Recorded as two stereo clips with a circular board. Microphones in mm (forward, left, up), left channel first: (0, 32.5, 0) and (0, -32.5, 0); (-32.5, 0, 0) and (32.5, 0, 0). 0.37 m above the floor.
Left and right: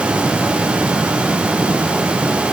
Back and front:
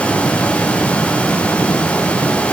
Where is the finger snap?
I don't hear a finger snap.